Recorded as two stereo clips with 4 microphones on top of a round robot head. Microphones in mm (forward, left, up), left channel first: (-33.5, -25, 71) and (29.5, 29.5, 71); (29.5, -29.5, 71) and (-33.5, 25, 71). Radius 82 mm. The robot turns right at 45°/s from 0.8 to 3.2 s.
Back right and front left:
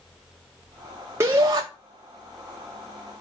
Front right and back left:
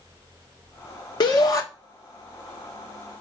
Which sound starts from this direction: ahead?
A shout, at 1.2 s.